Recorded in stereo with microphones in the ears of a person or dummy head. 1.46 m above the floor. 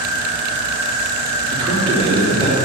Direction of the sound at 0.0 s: 25° right (ahead or behind).